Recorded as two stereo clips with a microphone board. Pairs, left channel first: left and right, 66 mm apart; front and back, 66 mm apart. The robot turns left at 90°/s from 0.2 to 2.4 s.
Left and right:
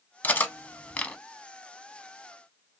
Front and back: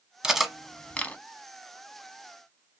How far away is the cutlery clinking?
About 0.6 m.